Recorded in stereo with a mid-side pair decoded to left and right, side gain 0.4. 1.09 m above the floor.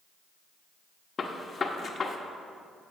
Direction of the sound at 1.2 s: 45° left.